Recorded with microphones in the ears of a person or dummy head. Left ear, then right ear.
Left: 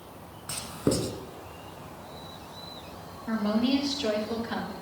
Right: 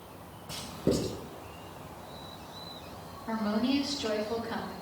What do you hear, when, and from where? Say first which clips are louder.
0.5 s writing: left 2 dB; 70° left (ahead or behind), 2.5 m
3.3 s a woman speaking: left 3 dB; 25° left (ahead or behind), 5.5 m